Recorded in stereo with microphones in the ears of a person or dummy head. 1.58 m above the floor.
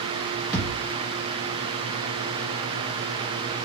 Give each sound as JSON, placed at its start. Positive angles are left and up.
{"t": 0.5, "sound": "a thud", "side_deg": -10, "distance_m": 1.6}